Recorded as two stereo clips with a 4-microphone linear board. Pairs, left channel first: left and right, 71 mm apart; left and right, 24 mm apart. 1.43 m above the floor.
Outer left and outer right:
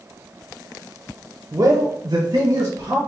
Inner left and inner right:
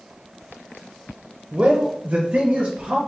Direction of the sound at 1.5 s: 45° right (ahead or behind).